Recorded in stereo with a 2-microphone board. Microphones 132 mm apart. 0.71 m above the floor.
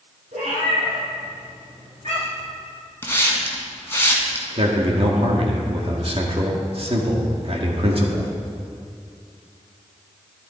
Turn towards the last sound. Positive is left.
turn(degrees=-50)  # may be behind; listen again after turning